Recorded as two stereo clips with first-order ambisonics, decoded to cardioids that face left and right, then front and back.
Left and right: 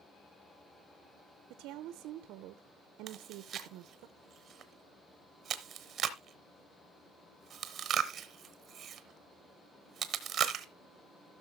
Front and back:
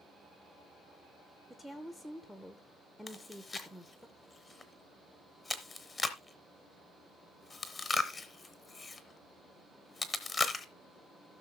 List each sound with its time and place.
1.5 s a woman speaking: 90° right, 0.6 m
3.1 s chewing: 70° right, 1.0 m